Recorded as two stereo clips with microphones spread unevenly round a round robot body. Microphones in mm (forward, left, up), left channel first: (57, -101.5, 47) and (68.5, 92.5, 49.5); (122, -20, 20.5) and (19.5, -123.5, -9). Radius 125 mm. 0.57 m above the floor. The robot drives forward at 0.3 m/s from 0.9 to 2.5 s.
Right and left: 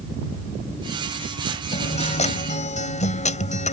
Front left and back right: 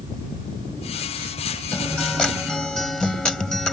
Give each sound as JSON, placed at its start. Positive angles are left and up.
{"t": 1.7, "sound": "a guitar", "azimuth_deg": -40}